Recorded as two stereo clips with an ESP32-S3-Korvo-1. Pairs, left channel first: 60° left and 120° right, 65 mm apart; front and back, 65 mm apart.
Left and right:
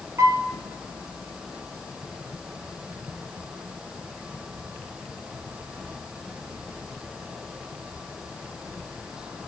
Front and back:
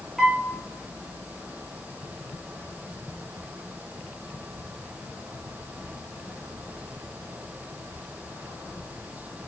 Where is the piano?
85° right, 1.1 m.